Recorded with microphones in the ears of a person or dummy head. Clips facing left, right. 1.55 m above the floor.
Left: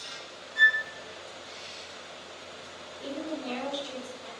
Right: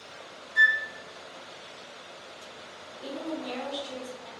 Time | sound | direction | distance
0.6 | a flute | centre (ahead or behind) | 1.3 m
3.0 | a woman speaking | 45° left (ahead or behind) | 1.6 m